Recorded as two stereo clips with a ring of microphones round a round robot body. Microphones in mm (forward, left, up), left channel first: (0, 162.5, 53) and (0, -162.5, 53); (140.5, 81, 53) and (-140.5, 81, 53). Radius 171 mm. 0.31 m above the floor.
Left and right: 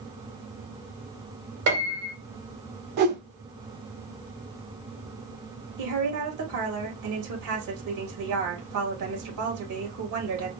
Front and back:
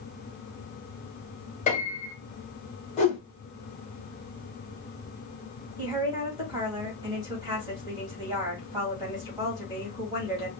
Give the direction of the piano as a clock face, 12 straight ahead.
2 o'clock.